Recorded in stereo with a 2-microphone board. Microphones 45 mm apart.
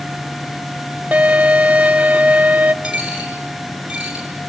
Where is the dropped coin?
15° right (ahead or behind), 6 m.